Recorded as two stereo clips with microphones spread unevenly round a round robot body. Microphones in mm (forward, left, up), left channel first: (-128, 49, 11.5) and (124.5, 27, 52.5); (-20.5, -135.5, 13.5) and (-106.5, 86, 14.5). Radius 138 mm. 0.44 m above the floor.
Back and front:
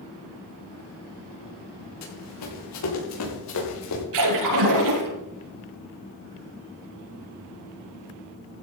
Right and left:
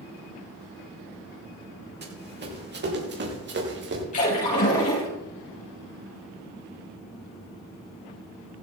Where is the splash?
5° right, 7 m.